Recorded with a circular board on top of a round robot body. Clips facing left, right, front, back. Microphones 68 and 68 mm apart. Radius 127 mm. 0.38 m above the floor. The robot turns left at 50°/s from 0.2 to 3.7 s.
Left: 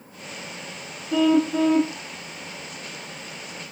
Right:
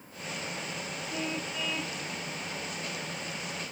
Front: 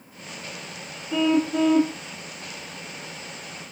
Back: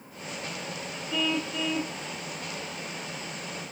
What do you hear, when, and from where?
1.1 s a car horn: 70° left; by 2.0 s 25° left